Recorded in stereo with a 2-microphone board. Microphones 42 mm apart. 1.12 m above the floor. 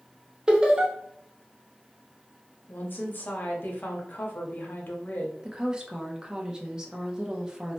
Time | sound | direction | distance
0.5 | laughter | 15° right (ahead or behind) | 0.8 m
2.7 | a woman speaking | 50° left (ahead or behind) | 0.7 m
5.4 | a woman speaking | 15° right (ahead or behind) | 0.6 m